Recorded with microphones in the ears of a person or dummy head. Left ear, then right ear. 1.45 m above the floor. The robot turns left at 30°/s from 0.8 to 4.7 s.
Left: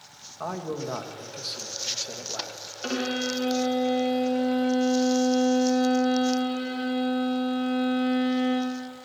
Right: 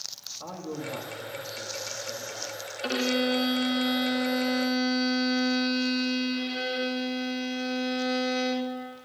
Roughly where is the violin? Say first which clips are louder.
Right 2 dB; ahead.